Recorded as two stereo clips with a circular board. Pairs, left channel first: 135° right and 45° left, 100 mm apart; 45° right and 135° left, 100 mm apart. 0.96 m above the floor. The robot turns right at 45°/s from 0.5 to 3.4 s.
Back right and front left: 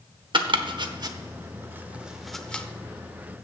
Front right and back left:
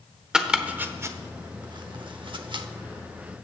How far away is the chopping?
About 0.8 m.